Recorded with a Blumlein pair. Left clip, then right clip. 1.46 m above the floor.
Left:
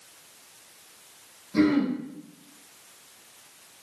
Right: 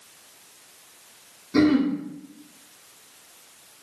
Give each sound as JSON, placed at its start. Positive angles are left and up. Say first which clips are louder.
{"t": 1.5, "sound": "throat clearing", "louder": "right 3 dB", "azimuth_deg": -25, "distance_m": 0.8}